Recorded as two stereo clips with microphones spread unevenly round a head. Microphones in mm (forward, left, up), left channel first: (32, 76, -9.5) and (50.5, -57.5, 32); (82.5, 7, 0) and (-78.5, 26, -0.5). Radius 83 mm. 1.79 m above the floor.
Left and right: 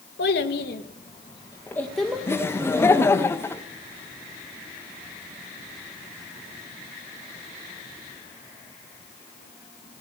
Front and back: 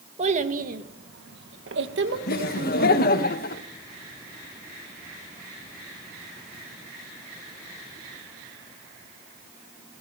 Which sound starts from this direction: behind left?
A child speaking, at 0.2 s.